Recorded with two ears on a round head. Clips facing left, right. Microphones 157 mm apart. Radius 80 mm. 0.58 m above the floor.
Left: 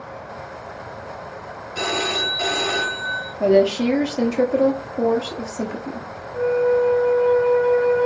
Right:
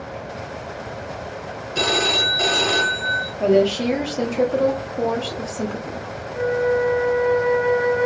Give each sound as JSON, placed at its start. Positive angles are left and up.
{"t": 1.8, "sound": "a phone ringing", "side_deg": -45, "distance_m": 1.2}
{"t": 3.4, "sound": "a woman speaking", "side_deg": 10, "distance_m": 0.7}
{"t": 6.3, "sound": "a flute", "side_deg": -20, "distance_m": 1.7}